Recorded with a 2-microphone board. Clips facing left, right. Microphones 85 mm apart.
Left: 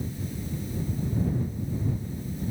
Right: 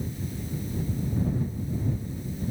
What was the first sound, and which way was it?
Only background noise.